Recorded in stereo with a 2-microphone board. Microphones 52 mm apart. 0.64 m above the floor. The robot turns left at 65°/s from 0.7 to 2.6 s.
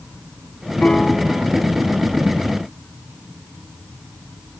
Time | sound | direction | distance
0.8 | a piano | 25° left | ?